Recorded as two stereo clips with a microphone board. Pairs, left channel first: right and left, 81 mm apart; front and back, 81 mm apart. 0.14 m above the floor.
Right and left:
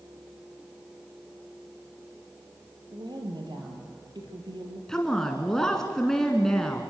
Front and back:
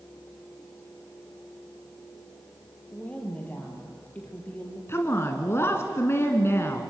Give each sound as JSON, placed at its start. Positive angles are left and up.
{"t": 2.9, "sound": "a woman speaking", "azimuth_deg": 70, "distance_m": 3.5}
{"t": 4.9, "sound": "a woman speaking", "azimuth_deg": -15, "distance_m": 1.7}